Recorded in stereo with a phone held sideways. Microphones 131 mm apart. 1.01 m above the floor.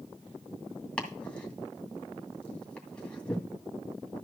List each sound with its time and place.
1.0 s chopping: 10° left (ahead or behind), 2 m